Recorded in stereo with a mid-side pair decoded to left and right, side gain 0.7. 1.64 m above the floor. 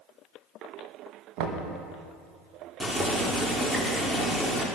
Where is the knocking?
65° right, 1.8 m.